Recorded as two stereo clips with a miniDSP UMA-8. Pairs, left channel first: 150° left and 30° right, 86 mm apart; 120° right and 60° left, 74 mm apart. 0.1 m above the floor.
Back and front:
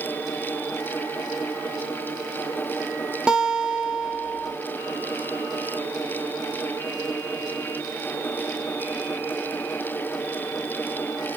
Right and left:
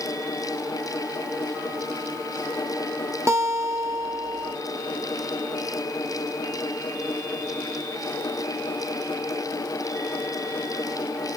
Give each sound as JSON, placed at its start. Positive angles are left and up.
{"t": 3.3, "sound": "a guitar", "azimuth_deg": 45, "distance_m": 0.9}